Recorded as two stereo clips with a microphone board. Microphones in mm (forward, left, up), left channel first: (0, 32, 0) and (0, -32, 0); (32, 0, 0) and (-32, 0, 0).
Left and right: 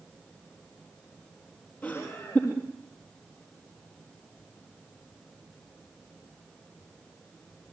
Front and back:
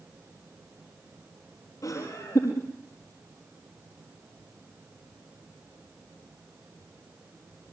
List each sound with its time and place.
1.8 s laughter: 30° left, 4.5 m